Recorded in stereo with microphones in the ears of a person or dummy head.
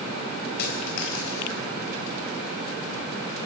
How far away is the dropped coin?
About 4 m.